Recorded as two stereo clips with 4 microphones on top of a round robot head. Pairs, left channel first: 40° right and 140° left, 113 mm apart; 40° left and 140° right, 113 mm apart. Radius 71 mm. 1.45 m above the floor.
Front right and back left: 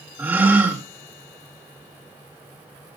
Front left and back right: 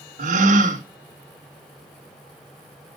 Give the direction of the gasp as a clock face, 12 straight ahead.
5 o'clock.